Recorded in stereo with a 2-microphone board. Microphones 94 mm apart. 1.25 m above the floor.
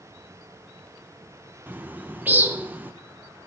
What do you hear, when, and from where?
1.7 s a bird: 20° right (ahead or behind), 0.7 m